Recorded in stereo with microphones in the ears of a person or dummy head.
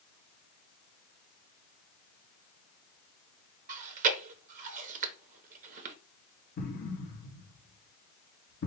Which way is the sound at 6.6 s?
55° left (ahead or behind).